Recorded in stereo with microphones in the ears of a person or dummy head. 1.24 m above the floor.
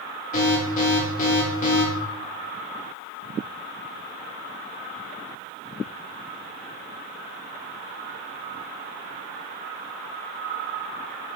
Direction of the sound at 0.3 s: 50° left (ahead or behind).